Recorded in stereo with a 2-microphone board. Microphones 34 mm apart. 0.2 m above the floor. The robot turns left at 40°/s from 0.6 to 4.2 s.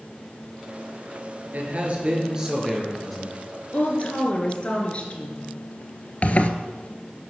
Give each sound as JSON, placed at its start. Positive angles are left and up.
{"t": 1.5, "sound": "a man speaking", "azimuth_deg": -125, "distance_m": 4.0}
{"t": 3.7, "sound": "a woman speaking", "side_deg": 50, "distance_m": 3.0}
{"t": 6.2, "sound": "a zipper", "side_deg": 40, "distance_m": 1.0}